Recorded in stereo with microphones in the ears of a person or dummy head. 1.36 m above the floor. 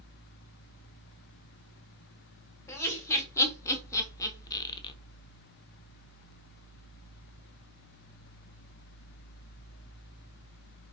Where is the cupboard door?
I don't hear a cupboard door.